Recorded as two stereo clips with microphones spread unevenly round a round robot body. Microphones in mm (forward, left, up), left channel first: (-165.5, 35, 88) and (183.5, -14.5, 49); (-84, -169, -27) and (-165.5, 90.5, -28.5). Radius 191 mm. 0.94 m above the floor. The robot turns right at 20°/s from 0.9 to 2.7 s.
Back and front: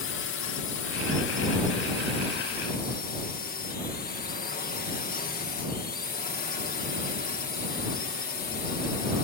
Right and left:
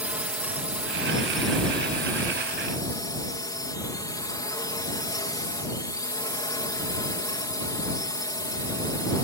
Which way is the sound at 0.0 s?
175° right.